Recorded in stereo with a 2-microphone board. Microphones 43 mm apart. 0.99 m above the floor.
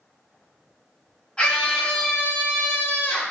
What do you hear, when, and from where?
1.4 s a scream: 25° left (ahead or behind), 1.8 m; by 3.3 s 50° left (ahead or behind), 1.1 m